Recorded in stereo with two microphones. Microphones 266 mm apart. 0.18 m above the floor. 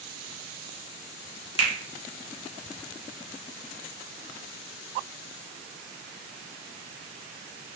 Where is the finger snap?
20° left (ahead or behind), 0.9 m.